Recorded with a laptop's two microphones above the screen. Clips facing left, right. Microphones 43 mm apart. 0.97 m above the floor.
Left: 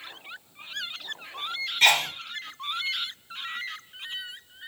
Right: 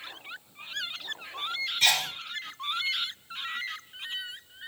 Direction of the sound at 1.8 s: 50° left (ahead or behind).